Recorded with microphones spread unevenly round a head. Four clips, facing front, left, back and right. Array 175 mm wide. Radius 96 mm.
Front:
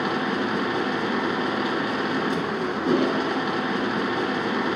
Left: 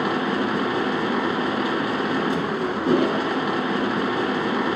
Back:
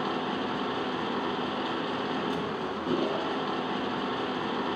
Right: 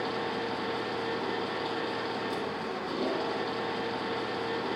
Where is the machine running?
60° left, 3 m.